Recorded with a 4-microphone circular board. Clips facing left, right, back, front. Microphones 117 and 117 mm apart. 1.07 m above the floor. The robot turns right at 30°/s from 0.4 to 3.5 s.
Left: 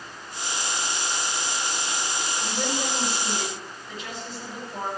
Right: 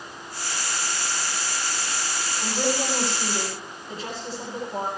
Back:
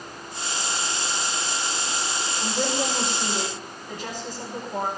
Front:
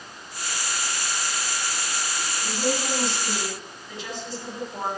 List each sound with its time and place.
2.4 s a woman speaking: 170° right, 9 m; by 4.9 s 135° right, 9 m